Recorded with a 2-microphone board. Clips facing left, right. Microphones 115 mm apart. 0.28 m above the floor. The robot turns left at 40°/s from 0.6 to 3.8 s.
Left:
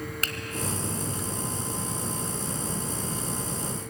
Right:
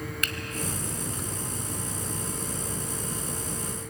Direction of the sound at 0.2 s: 40° left (ahead or behind).